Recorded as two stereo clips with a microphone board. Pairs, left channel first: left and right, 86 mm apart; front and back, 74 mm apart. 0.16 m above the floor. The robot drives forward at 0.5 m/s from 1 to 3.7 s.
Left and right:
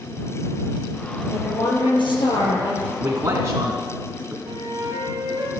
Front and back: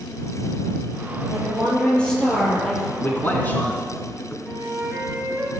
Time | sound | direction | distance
1.3 | a woman speaking | 70° left | 4 m
3.0 | a man speaking | 45° right | 1.4 m
4.4 | a flute | 120° right | 3.5 m